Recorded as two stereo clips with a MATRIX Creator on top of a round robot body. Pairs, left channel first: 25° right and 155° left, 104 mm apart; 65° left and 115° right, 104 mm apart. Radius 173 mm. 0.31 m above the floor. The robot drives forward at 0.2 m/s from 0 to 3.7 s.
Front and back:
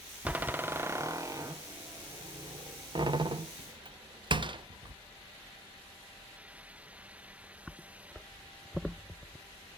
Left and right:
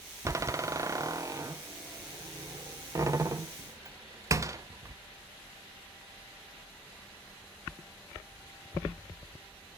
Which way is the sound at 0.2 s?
135° right.